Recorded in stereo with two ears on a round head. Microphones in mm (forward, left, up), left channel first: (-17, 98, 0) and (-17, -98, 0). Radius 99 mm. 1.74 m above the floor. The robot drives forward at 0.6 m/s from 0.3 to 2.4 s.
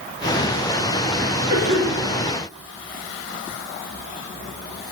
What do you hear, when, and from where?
1.5 s a cough: 45° right (ahead or behind), 4.5 m; by 2.0 s 50° right (ahead or behind), 4.5 m